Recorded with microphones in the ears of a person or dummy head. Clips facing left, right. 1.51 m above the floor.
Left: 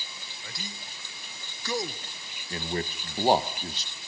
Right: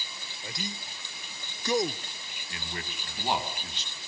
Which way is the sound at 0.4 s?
20° right (ahead or behind).